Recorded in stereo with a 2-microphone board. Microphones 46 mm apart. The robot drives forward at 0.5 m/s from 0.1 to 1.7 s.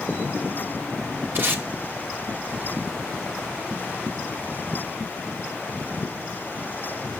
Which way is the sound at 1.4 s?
45° right (ahead or behind).